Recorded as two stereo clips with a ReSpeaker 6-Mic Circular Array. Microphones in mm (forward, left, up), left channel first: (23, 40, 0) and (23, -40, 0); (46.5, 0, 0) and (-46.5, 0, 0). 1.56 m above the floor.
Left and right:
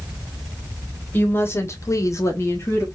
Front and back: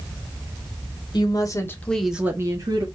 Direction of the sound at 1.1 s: 25° left.